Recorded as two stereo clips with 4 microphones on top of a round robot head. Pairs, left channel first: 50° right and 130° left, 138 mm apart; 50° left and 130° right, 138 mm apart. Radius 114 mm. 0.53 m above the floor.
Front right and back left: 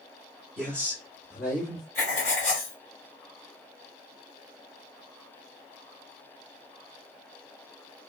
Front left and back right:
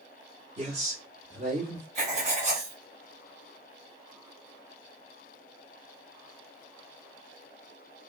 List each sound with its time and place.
0.6 s a man speaking: 135° right, 1.6 m; by 1.9 s 110° right, 2 m
1.9 s writing: 90° right, 1.7 m